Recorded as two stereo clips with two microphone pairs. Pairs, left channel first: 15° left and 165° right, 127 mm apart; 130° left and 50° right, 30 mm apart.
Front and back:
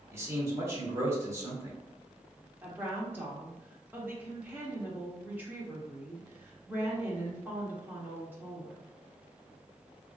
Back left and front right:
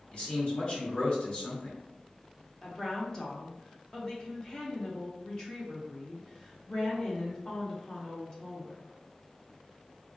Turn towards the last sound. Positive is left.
turn(degrees=145)